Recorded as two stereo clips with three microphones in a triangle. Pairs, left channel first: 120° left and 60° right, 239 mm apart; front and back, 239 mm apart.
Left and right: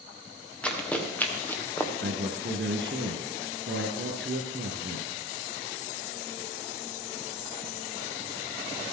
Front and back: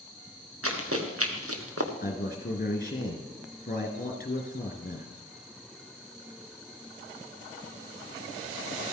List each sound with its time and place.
0.6 s running footsteps: 155° right, 2.5 m; by 1.9 s 160° right, 1.7 m
2.0 s a man speaking: 40° right, 2.5 m